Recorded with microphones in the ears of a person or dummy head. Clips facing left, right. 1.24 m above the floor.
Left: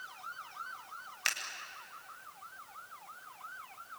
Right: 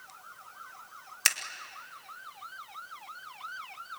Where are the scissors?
60° right (ahead or behind), 1.8 m.